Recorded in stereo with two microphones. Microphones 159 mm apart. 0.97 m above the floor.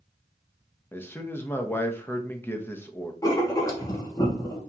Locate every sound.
0.9 s a man speaking: 15° left (ahead or behind), 0.7 m
3.2 s writing: 20° left (ahead or behind), 1.1 m